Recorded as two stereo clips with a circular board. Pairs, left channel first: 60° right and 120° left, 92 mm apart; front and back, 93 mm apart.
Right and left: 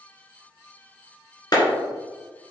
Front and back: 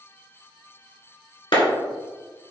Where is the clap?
15° right, 2.5 m.